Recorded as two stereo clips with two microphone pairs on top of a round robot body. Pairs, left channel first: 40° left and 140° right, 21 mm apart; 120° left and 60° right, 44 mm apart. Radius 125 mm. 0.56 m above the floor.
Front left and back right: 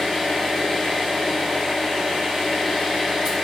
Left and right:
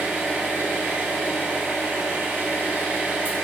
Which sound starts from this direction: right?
An engine running, at 0.0 s.